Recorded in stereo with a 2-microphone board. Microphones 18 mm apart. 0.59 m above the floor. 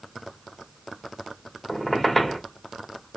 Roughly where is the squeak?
Centre.